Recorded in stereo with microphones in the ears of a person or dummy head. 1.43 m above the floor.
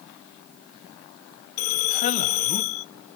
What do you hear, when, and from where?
1.6 s a man speaking: 50° left (ahead or behind), 0.6 m